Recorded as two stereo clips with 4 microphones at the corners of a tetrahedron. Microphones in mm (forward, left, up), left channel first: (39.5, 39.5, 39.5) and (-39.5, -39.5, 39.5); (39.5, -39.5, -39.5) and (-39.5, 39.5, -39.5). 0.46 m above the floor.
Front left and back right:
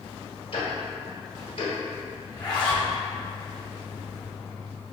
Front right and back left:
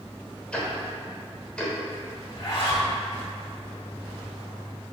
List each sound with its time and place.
0.5 s ticking: 35° left, 0.9 m
2.3 s a zipper: 5° right, 0.8 m